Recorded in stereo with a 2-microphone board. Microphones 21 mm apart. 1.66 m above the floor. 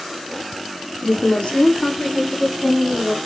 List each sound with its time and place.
1.0 s a woman speaking: 60° left (ahead or behind), 0.9 m; by 3.1 s 35° left (ahead or behind), 1.7 m